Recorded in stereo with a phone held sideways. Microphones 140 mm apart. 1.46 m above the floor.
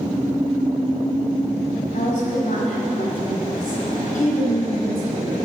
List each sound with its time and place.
1.9 s a woman speaking: 70° left (ahead or behind), 4.5 m